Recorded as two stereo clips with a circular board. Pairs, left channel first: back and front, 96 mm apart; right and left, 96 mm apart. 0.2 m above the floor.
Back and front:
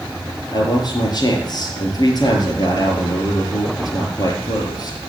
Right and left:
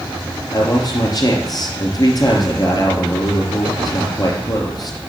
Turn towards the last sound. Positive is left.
turn(degrees=-135)